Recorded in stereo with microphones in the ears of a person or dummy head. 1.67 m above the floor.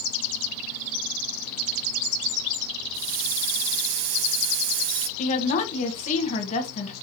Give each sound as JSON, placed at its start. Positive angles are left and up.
{"t": 2.9, "sound": "a hiss", "side_deg": -65, "distance_m": 0.5}
{"t": 5.2, "sound": "a woman speaking", "side_deg": 45, "distance_m": 1.2}